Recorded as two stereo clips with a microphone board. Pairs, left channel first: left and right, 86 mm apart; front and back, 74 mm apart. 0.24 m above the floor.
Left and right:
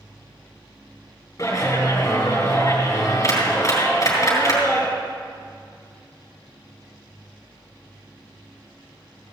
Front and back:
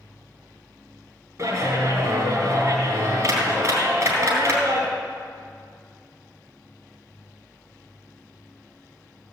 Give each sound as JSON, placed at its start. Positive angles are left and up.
{"t": 1.4, "sound": "a clap", "azimuth_deg": 140, "distance_m": 3.5}